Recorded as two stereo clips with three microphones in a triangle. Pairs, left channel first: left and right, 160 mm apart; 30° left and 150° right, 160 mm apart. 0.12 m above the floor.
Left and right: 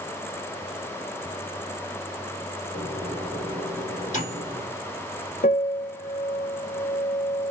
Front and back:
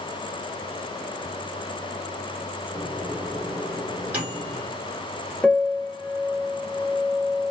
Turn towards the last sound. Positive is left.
turn(degrees=115)